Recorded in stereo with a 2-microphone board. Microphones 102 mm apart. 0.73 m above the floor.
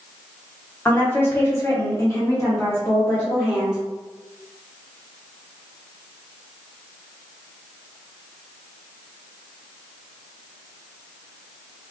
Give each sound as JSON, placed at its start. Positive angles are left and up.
{"t": 0.8, "sound": "a woman speaking", "side_deg": 20, "distance_m": 1.0}